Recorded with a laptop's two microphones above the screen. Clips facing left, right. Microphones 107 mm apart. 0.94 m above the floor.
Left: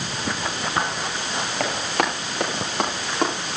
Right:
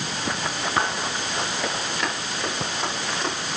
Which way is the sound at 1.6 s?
80° left.